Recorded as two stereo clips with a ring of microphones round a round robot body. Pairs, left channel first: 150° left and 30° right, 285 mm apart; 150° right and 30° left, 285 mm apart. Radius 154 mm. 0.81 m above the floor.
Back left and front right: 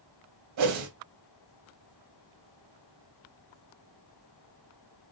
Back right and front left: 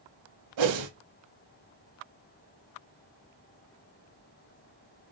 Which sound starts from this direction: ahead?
A whoosh, at 0.6 s.